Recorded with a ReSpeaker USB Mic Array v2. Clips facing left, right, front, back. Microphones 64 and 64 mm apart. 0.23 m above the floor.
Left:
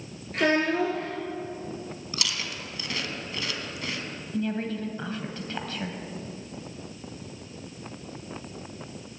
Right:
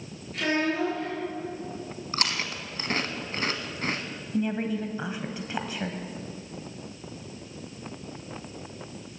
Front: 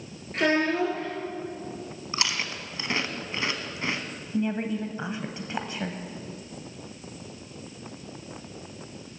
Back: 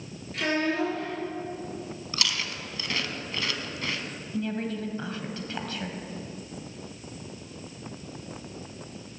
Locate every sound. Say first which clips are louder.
0.3 s a child speaking: left 3 dB, front 3 dB; 50° left, 3 m
2.1 s chewing: right 4 dB, front 2 dB; 60° right, 1.2 m
4.3 s a woman speaking: right 2 dB, front 3 dB; 35° right, 1.1 m